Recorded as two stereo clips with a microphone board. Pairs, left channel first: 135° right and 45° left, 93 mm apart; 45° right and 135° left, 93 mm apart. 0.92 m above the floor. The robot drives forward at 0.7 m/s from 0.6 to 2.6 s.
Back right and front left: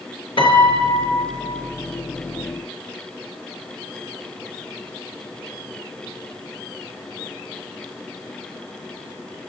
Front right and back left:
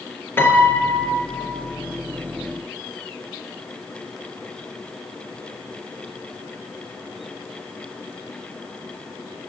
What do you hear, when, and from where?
0.4 s a piano: 110° right, 4 m; by 1.6 s 120° right, 4 m